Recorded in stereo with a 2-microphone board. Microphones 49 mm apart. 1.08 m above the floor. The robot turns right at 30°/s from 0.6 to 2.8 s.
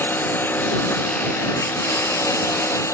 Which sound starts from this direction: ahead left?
A lawn mower, at 0.0 s.